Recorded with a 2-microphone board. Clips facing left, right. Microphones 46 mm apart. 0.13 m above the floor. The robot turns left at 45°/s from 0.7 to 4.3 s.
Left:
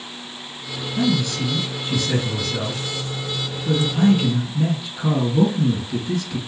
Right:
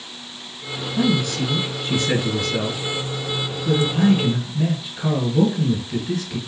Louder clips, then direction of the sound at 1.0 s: Right 1 dB; 20° right.